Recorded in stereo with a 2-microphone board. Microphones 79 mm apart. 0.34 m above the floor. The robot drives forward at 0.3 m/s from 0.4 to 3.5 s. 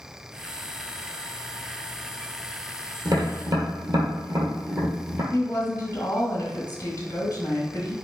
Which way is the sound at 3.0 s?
50° right (ahead or behind).